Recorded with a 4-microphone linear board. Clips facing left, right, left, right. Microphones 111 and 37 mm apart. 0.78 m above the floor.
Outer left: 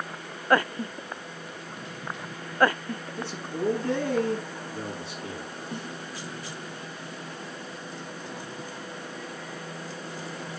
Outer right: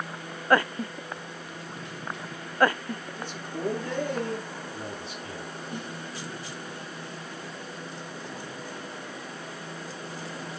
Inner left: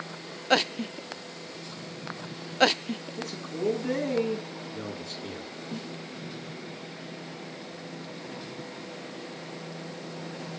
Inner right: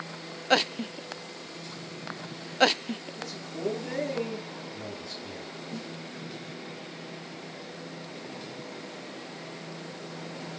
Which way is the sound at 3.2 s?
80° left.